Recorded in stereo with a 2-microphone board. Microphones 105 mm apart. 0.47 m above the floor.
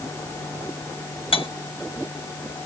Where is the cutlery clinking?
60° left (ahead or behind), 2.0 m.